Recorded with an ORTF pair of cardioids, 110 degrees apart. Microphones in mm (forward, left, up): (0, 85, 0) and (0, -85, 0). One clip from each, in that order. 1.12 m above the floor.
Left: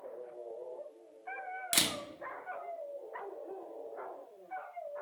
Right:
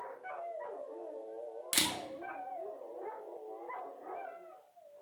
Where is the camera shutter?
10° left, 0.5 m.